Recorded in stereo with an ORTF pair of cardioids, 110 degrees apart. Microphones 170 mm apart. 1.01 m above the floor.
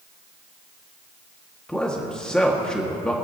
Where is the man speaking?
5° left, 1.6 m.